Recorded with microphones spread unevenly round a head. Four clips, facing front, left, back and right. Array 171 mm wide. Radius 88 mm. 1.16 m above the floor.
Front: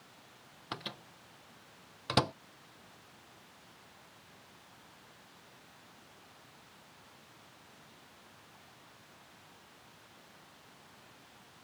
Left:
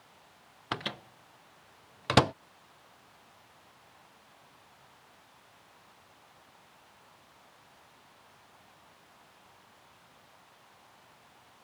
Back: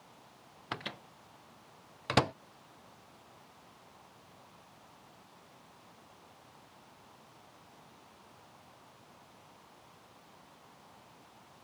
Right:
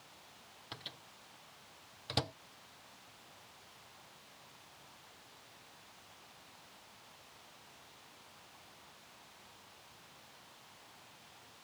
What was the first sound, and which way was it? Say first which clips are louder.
A microwave: left 16 dB, back 2 dB; 75° left.